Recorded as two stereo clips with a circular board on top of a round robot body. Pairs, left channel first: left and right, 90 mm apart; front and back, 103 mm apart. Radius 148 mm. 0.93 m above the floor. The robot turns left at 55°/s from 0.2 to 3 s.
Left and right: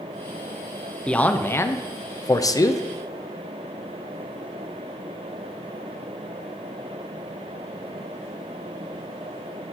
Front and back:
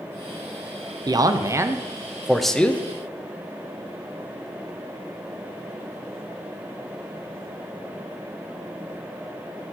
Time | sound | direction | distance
1.1 | a man speaking | 165° left | 0.6 m